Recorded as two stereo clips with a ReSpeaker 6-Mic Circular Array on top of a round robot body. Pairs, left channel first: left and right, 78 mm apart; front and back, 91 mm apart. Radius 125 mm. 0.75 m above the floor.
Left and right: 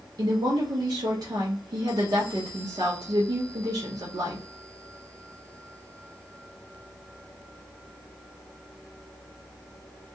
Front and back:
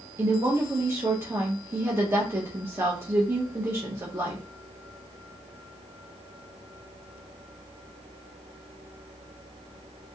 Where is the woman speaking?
120° right, 0.9 m.